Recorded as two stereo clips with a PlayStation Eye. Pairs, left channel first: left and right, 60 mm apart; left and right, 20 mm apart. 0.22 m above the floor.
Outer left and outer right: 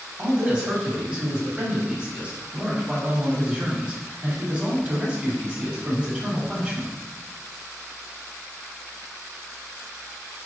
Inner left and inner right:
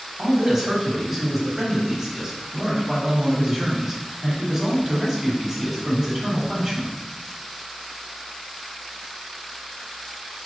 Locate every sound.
0.2 s a man speaking: 20° right (ahead or behind), 1.1 m